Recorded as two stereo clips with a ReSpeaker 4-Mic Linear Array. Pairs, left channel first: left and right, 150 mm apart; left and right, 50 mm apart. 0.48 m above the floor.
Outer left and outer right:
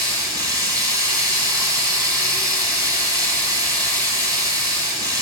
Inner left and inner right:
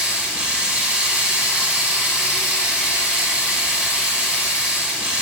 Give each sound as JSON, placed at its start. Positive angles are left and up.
{"t": 0.0, "sound": "running water", "side_deg": -25, "distance_m": 1.6}